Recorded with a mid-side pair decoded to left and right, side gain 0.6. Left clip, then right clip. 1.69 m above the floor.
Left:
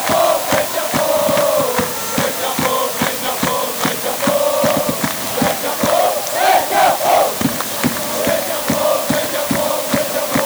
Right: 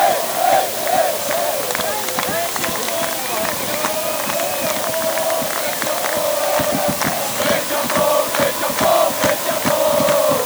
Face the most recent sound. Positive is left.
No sound to turn to.